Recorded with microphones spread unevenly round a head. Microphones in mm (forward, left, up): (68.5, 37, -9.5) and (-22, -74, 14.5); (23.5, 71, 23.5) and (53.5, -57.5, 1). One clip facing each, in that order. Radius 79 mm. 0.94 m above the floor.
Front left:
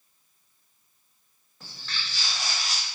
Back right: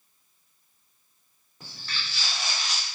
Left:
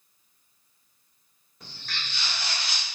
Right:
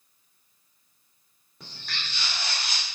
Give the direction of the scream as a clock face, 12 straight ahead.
No scream in this recording.